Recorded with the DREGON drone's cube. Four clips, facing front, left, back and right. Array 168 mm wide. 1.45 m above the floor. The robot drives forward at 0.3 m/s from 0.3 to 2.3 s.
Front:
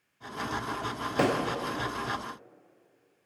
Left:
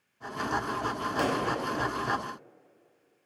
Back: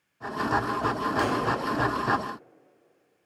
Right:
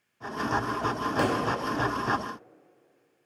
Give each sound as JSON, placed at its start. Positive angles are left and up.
{"t": 1.2, "sound": "a pop", "azimuth_deg": -20, "distance_m": 0.6}